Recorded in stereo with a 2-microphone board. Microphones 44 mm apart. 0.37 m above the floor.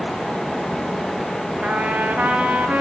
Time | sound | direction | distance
1.6 | a trumpet | 30° right (ahead or behind) | 2.5 m